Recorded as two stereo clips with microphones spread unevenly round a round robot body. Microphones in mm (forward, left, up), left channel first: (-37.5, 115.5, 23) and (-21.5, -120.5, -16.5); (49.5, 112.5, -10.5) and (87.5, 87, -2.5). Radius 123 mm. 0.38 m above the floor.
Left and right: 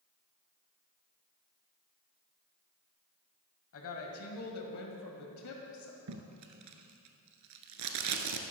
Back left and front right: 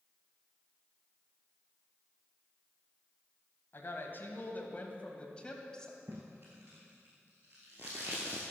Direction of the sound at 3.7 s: 125° left.